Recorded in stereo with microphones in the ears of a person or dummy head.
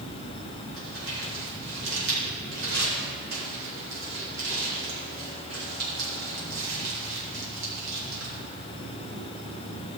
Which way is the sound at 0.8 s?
70° right (ahead or behind).